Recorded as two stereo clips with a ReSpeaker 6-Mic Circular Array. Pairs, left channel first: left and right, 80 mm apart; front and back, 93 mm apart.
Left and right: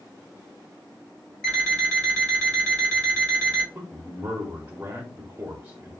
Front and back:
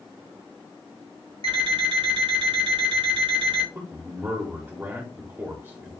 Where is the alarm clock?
170° left, 2 m.